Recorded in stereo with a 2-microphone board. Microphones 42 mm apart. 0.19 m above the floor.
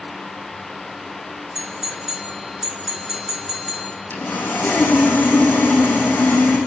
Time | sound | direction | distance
1.6 | a doorbell | 10° right (ahead or behind) | 3.5 m
4.1 | sawing | 50° left (ahead or behind) | 4.5 m